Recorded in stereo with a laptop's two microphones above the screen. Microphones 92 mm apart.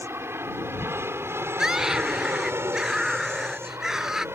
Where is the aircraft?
25° right (ahead or behind).